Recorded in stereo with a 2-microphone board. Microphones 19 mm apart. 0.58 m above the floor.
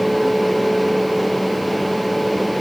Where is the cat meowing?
I don't hear a cat meowing.